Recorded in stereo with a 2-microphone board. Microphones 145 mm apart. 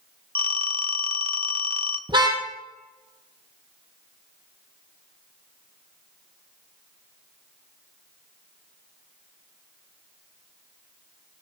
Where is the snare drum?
I don't hear a snare drum.